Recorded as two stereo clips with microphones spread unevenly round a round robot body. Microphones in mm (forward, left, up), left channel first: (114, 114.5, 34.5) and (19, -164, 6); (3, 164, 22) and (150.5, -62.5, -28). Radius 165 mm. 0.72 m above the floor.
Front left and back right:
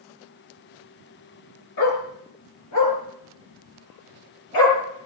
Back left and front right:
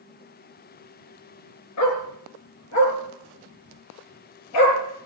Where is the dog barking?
110° left, 4.5 m.